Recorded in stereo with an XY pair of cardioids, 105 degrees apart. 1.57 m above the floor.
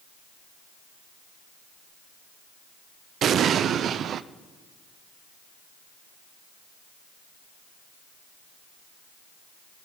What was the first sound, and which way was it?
An explosion, 60° right.